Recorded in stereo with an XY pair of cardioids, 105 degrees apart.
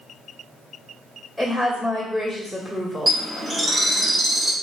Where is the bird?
30° right, 0.8 m.